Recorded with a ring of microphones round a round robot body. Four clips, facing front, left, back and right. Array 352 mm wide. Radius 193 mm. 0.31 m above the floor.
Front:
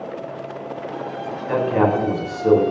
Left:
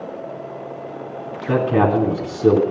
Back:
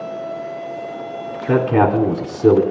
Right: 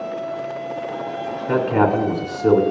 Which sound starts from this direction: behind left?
A man speaking, at 1.5 s.